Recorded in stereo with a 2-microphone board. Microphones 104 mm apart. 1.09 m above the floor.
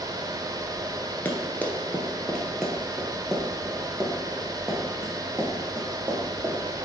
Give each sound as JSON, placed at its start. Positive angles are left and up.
{"t": 1.2, "sound": "running footsteps", "side_deg": 20, "distance_m": 1.2}